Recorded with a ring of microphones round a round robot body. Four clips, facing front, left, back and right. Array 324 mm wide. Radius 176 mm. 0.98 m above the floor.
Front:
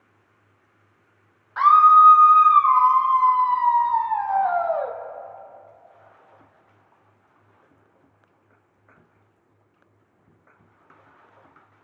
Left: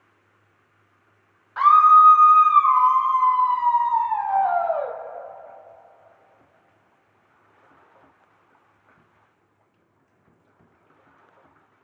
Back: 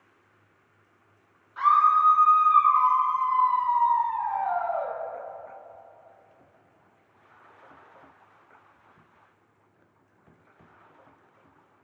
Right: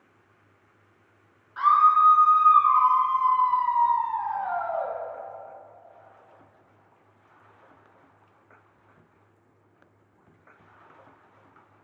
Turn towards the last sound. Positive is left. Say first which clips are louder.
# left 6 dB, front 7 dB
turn(degrees=40)